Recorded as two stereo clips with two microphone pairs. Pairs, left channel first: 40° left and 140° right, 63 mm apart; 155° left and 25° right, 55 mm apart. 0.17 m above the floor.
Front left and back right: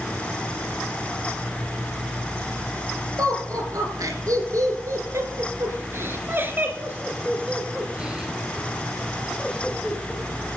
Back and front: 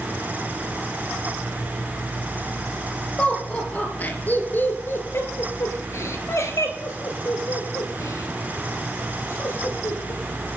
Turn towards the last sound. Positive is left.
turn(degrees=125)